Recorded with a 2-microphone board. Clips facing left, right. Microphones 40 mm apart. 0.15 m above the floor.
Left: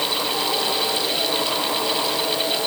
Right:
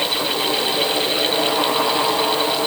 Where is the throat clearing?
I don't hear throat clearing.